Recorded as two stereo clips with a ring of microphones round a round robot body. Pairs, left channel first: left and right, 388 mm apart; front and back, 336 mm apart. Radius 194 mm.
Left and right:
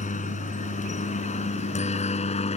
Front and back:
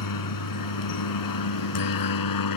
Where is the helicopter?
20° left; by 2.6 s 15° left.